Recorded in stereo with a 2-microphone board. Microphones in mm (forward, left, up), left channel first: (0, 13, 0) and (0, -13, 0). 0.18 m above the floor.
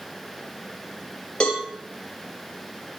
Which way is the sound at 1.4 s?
40° left (ahead or behind).